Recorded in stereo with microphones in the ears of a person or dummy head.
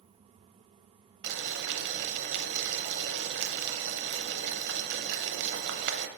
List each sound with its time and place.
1.2 s boiling: 60° right (ahead or behind), 0.7 m